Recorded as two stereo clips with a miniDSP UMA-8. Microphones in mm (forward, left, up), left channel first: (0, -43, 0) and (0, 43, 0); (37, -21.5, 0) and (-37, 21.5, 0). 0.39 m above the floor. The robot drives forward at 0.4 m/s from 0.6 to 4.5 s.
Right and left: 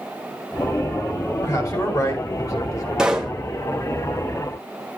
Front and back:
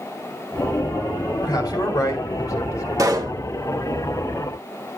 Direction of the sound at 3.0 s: 170° left.